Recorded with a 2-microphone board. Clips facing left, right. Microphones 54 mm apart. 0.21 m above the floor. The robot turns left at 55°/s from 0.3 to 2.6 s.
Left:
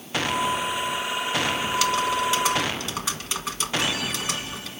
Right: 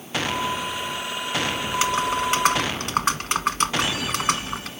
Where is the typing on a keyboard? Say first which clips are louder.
Right 2 dB; 25° right, 1.3 m; by 4.7 s 80° right, 1.3 m.